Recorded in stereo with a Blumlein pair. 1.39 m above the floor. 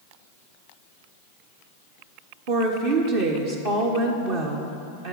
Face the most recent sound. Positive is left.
turn(degrees=-45)